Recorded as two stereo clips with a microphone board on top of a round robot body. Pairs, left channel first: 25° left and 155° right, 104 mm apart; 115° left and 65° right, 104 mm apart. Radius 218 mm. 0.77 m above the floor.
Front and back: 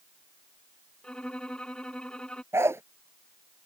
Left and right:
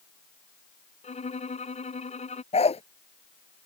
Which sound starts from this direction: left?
A violin, at 1.0 s.